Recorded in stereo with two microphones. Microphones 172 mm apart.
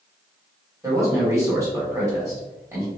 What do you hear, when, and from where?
0.8 s a man speaking: 20° right (ahead or behind), 1.7 m